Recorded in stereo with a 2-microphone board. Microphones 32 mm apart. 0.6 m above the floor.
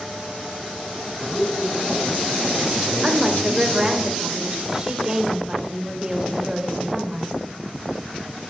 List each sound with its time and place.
1.2 s a man speaking: 25° left (ahead or behind), 4.5 m; by 4.0 s 5° left (ahead or behind), 1.9 m
3.0 s a woman speaking: 20° right (ahead or behind), 2.5 m